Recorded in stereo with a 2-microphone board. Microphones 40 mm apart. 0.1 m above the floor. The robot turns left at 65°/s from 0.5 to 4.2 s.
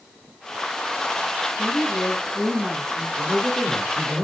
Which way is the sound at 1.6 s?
10° left.